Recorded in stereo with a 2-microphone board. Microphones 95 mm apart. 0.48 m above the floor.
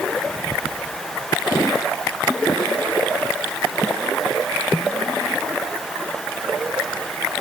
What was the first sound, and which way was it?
Only background noise.